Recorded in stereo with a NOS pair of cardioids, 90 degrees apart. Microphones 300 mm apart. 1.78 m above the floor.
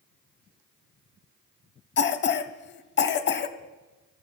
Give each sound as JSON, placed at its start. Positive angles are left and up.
{"t": 2.0, "sound": "a cough", "azimuth_deg": 35, "distance_m": 0.9}